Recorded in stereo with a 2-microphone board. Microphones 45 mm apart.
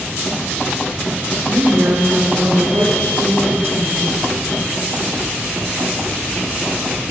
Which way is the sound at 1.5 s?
80° right.